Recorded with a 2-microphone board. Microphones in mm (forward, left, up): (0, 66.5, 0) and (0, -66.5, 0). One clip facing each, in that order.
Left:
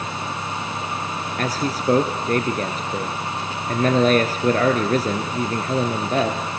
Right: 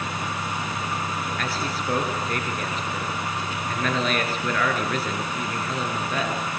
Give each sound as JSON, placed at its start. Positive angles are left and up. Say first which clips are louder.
{"t": 1.4, "sound": "a man speaking", "louder": "left 5 dB", "side_deg": 40, "distance_m": 2.0}